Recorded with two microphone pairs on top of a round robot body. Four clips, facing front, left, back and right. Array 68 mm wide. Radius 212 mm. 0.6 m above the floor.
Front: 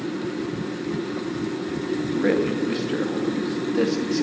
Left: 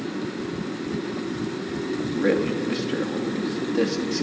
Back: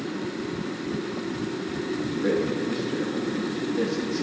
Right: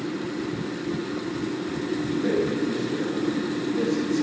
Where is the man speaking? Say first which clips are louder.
Left 2 dB, front 4 dB; 35° left, 1.1 m.